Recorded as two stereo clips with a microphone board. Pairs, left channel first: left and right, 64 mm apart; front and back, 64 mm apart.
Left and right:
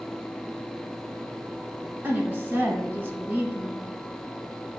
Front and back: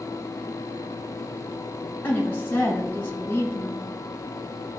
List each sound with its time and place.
2.0 s a woman speaking: 45° right, 1.2 m